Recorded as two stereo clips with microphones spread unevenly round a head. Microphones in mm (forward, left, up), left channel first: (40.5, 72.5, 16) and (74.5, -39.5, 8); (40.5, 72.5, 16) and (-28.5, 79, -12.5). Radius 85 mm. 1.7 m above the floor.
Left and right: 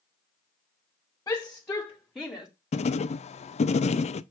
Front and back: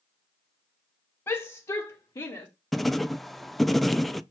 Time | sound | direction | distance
1.3 | a shout | 45° left | 2 m
2.7 | writing | 80° left | 0.6 m